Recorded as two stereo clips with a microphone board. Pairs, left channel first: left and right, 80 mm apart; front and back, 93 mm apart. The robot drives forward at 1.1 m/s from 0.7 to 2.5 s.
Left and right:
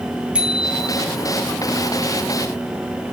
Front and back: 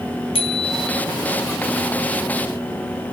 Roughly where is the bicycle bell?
Ahead.